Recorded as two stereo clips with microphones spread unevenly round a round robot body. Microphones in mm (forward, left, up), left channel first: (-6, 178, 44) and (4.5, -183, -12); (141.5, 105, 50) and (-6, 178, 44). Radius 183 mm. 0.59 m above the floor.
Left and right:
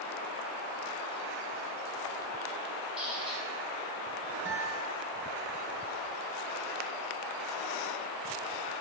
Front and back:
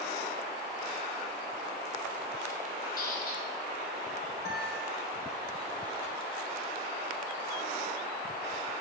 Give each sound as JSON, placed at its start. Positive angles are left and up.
{"t": 3.0, "sound": "a squeak", "azimuth_deg": 0, "distance_m": 3.5}
{"t": 4.5, "sound": "a guitar", "azimuth_deg": -40, "distance_m": 4.0}